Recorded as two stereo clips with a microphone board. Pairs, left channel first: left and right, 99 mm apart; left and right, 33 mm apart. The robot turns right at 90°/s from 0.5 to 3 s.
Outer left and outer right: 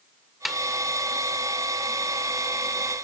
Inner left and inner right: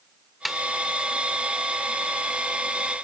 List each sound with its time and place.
0.5 s a snare drum: centre (ahead or behind)